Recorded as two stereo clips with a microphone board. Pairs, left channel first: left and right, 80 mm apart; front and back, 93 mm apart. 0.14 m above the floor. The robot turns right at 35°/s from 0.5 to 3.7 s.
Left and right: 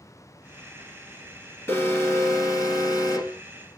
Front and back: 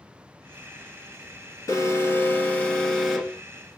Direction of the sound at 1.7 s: 35° left.